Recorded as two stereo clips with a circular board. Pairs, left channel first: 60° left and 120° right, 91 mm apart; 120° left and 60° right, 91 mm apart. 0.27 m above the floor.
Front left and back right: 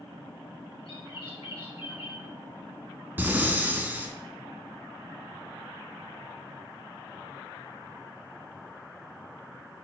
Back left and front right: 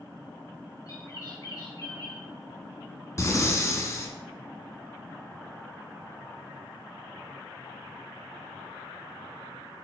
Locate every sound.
0.9 s a bird: 75° left, 3 m
3.2 s breathing: 170° left, 0.9 m